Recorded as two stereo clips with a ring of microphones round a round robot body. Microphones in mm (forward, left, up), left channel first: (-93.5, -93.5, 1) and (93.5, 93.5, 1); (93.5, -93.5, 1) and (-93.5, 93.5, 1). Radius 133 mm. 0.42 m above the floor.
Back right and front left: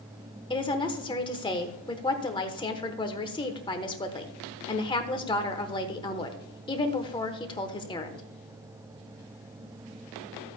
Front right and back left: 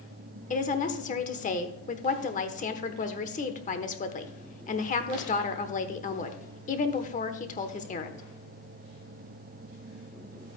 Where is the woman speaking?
80° right, 1.0 m.